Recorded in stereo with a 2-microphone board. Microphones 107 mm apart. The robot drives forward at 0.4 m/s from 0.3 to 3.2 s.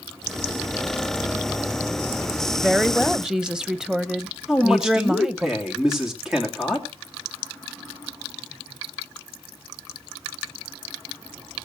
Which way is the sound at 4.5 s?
5° right (ahead or behind).